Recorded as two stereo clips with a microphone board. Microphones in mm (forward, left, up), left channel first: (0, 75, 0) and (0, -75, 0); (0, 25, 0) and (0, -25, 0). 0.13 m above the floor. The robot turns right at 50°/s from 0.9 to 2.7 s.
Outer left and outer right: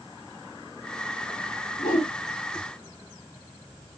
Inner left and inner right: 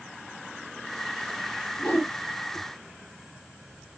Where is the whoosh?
65° left (ahead or behind), 4 m.